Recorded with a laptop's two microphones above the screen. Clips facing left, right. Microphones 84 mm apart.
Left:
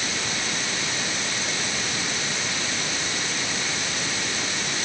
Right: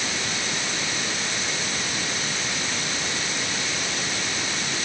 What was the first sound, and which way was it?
Only background noise.